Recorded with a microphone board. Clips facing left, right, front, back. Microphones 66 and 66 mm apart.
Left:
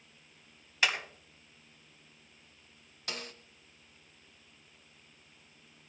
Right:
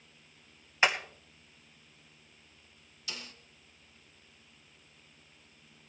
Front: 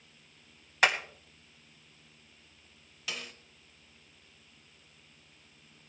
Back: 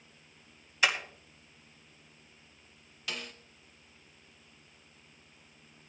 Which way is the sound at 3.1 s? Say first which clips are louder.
Left 4 dB, back 1 dB; 85° left.